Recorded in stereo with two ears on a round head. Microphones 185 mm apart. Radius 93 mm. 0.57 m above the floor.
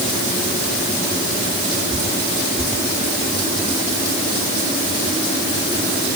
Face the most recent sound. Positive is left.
No sound to turn to.